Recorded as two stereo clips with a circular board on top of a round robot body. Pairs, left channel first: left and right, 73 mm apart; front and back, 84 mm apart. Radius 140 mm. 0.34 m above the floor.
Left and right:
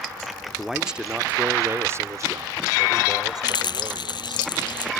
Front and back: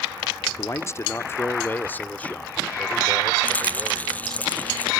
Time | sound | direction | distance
0.6 | a man speaking | 5° right | ?
3.4 | a rattle | 70° left | ?